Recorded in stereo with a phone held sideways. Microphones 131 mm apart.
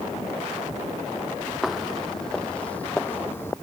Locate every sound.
1.6 s footsteps: centre (ahead or behind); by 3.5 s 20° left (ahead or behind)